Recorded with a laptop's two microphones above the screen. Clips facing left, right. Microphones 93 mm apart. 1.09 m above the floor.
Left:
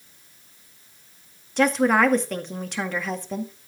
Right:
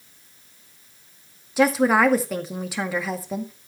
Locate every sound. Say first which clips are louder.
1.6 s a woman speaking: right 1 dB; 5° right (ahead or behind), 1.8 m